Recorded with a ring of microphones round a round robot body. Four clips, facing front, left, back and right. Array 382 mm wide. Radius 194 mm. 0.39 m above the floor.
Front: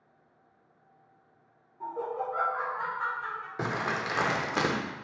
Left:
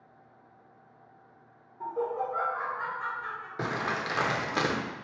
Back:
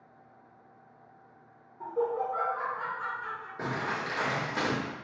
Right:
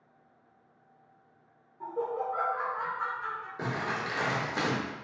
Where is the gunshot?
I don't hear a gunshot.